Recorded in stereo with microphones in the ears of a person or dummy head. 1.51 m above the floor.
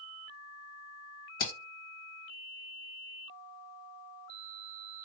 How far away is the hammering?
About 1.2 m.